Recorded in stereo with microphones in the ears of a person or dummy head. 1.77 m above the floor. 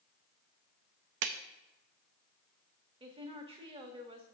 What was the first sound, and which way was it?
A clap, 60° right (ahead or behind).